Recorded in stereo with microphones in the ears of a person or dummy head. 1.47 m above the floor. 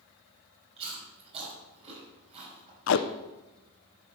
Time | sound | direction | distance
0.8 | chewing | 35° right (ahead or behind) | 5.5 m
2.9 | tape being pulled | 70° left (ahead or behind) | 0.8 m